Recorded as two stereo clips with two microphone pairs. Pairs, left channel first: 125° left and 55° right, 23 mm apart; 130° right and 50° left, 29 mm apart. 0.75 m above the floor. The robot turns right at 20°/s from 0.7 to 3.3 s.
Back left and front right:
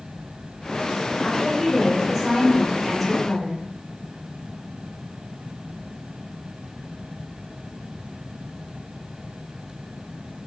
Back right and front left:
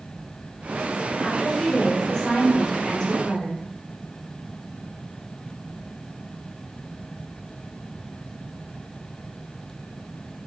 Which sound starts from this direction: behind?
A woman speaking, at 1.2 s.